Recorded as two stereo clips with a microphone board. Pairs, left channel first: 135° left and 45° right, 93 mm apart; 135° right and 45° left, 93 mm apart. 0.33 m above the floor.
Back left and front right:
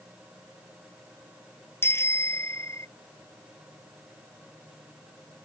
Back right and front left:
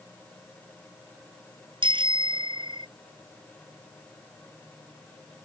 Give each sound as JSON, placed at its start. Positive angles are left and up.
{"t": 1.8, "sound": "a bicycle bell", "azimuth_deg": 70}